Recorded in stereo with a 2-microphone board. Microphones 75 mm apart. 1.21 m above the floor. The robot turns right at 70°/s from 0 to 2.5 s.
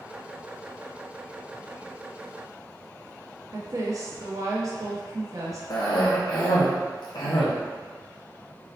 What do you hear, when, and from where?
3.5 s a woman speaking: 45° right (ahead or behind), 0.6 m
5.7 s a cough: 70° left (ahead or behind), 0.6 m